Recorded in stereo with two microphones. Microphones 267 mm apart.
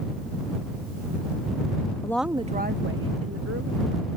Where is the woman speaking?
15° left (ahead or behind); by 4.1 s 70° right (ahead or behind).